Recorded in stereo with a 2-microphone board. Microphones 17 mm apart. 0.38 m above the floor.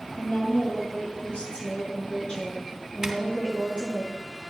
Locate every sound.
0.2 s a woman speaking: 80° left, 6.5 m
3.0 s a zipper: 25° right (ahead or behind), 1.8 m